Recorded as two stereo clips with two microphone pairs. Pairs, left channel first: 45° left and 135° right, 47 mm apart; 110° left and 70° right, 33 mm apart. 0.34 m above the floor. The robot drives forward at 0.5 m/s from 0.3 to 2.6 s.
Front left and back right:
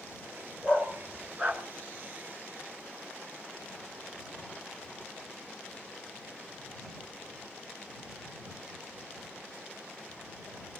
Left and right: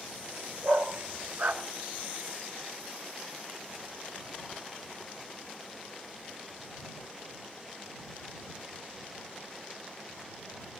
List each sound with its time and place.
0.6 s a dog barking: 60° right, 1.7 m; by 1.6 s 80° right, 1.6 m